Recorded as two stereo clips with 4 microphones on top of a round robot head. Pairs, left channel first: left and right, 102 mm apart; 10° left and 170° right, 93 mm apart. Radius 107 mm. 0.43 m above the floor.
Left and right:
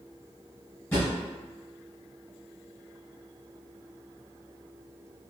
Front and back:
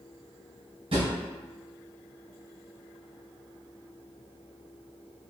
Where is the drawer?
160° left, 1.4 m.